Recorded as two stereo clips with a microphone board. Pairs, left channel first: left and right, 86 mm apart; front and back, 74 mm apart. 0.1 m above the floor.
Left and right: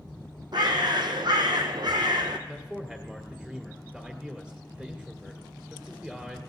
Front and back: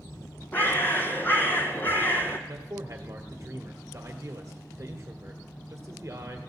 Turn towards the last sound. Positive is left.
turn(degrees=-165)